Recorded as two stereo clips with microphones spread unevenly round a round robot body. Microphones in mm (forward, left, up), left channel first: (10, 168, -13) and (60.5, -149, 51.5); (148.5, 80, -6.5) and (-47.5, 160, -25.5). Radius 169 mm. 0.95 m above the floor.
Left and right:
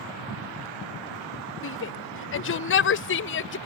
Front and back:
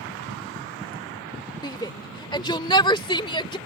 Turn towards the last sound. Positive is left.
turn(degrees=45)